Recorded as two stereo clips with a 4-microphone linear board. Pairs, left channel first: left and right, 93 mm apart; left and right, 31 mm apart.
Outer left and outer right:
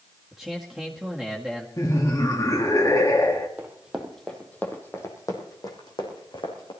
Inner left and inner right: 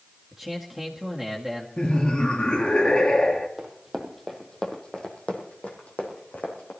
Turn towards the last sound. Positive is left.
turn(degrees=60)  # may be behind; listen again after turning